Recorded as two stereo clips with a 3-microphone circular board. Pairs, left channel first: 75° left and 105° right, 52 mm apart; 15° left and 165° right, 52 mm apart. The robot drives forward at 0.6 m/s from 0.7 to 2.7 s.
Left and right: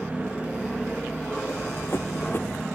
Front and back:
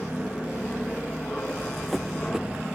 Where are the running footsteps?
90° left; by 2.6 s 125° left.